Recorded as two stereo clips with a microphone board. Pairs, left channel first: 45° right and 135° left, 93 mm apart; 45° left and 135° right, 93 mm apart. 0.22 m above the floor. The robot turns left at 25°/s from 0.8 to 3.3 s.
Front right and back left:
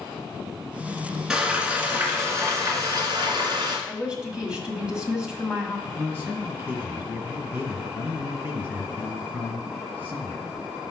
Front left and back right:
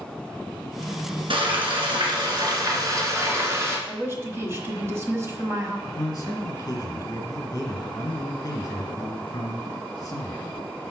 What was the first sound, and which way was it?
Frying, 145° right.